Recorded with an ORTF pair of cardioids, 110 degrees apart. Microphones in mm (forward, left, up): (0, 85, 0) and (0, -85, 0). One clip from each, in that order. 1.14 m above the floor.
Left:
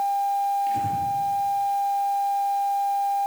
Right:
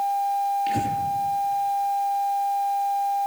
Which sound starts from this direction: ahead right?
Breathing, at 0.7 s.